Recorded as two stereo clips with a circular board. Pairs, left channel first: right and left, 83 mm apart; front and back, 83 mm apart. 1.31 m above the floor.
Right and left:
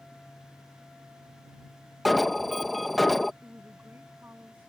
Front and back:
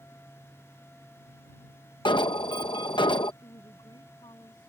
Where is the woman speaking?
25° left.